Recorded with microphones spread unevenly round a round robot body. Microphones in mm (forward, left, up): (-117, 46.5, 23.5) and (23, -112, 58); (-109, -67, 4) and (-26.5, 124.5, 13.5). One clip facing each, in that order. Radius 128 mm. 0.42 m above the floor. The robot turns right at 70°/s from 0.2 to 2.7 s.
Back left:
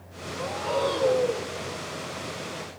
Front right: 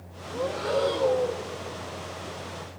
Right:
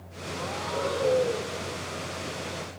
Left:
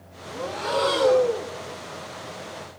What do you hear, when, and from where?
0.3 s breathing: straight ahead, 0.5 m; by 1.5 s 80° left, 0.5 m